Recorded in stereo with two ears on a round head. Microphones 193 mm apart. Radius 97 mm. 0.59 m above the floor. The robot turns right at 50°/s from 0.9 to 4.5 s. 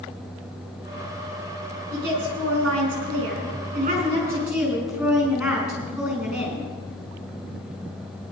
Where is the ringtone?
No ringtone in this recording.